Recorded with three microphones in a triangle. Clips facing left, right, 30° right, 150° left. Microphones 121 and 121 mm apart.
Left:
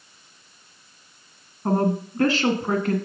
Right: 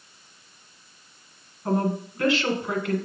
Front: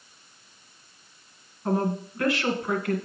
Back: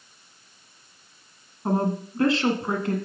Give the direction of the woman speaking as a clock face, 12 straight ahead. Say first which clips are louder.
Left 3 dB, back 1 dB; 8 o'clock.